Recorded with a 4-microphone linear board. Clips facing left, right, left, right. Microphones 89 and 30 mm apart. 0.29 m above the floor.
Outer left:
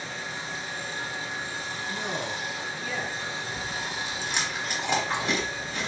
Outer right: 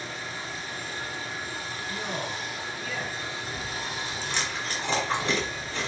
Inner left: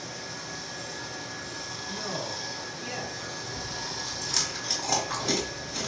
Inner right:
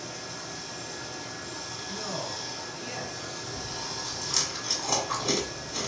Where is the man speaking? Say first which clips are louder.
Outer left 1 dB, inner left 1 dB; 30° left (ahead or behind), 2 m.